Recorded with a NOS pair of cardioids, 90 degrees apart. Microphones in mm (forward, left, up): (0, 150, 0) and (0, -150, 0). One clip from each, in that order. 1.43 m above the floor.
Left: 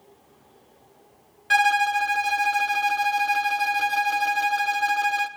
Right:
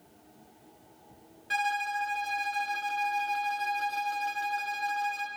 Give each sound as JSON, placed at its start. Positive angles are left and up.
{"t": 1.5, "sound": "a violin", "azimuth_deg": 45, "distance_m": 0.6}